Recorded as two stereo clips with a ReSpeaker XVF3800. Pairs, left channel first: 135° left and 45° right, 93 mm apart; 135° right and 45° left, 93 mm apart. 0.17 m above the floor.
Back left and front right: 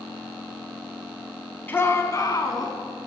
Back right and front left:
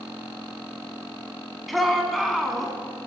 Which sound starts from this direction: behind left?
A shout, at 1.7 s.